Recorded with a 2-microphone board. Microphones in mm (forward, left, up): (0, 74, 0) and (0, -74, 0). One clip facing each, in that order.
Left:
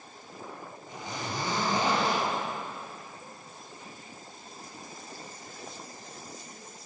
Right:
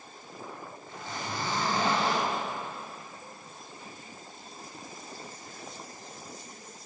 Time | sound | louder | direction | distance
0.9 | a zipper | left 1 dB | 15° left (ahead or behind) | 4 m